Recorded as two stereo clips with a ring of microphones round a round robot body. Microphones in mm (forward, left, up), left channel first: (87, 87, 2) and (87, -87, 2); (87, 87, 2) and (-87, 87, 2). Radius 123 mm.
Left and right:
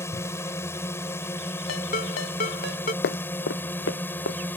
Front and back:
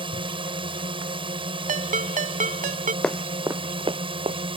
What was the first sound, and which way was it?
A drone, 155° left.